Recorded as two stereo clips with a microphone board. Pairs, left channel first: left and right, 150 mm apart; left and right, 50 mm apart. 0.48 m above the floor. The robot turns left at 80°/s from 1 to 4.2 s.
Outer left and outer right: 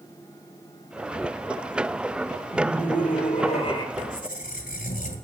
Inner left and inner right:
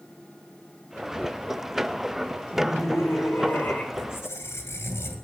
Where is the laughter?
130° left, 5.5 m; by 3.8 s 25° left, 5.5 m.